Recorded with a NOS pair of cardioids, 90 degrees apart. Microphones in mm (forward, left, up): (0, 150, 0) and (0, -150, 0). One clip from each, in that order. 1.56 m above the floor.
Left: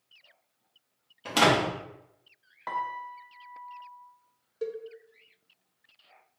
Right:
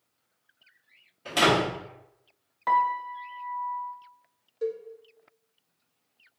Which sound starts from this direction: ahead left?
A door slam, at 1.2 s.